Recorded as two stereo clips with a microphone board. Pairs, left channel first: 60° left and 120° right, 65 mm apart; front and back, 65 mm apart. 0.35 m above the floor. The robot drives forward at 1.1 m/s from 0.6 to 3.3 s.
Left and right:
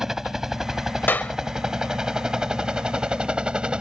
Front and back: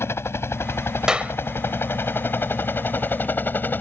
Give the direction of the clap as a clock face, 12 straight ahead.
8 o'clock.